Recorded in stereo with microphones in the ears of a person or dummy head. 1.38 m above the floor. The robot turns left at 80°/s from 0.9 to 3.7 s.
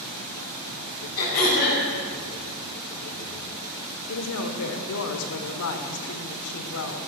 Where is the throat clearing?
115° left, 5 m; by 1.8 s 60° left, 5 m.